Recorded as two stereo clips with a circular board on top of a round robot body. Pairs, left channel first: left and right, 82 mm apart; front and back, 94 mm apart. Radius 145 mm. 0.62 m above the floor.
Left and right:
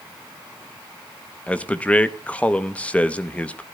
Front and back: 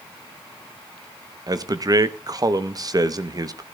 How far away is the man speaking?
About 0.9 m.